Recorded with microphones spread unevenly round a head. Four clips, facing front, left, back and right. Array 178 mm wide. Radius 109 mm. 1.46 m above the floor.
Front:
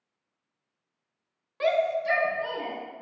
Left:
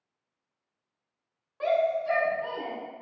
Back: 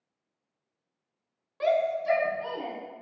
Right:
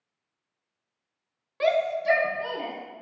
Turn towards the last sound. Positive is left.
turn(degrees=-110)